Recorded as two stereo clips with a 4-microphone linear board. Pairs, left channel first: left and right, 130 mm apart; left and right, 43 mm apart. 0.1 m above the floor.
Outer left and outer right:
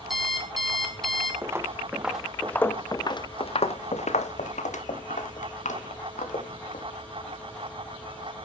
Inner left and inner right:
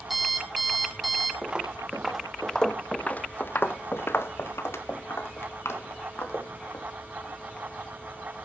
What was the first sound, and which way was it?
An alarm clock, centre (ahead or behind).